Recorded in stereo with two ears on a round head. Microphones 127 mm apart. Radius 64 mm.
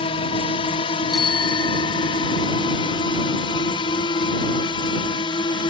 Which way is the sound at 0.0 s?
40° left (ahead or behind).